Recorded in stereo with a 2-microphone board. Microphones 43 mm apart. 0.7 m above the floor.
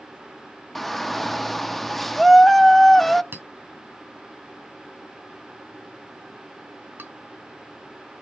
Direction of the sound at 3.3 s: 55° right (ahead or behind).